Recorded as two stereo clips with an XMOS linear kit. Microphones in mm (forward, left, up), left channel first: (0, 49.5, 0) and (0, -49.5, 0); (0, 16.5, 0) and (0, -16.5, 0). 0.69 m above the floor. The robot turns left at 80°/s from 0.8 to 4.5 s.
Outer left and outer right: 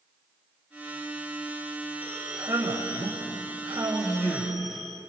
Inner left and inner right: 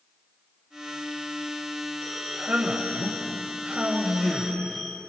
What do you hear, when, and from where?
2.0 s a man speaking: 15° right, 3 m; by 5.0 s 145° left, 3 m